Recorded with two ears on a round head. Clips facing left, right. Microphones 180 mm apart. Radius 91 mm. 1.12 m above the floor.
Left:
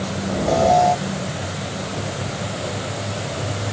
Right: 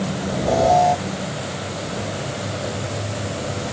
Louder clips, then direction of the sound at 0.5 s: Even; centre (ahead or behind).